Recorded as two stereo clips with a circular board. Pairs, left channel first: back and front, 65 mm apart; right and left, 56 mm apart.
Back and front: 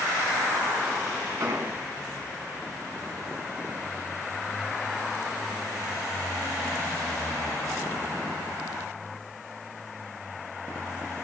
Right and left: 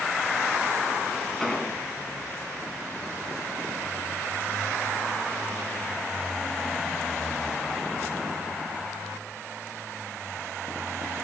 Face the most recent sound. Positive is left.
turn(degrees=-5)